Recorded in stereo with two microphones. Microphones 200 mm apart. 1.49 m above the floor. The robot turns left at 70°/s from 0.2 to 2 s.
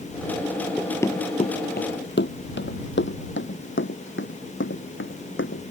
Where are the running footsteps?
Centre (ahead or behind); by 5.6 s 75° left (ahead or behind).